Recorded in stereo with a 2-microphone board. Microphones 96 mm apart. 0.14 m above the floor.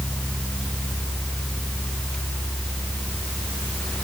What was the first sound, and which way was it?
Only background noise.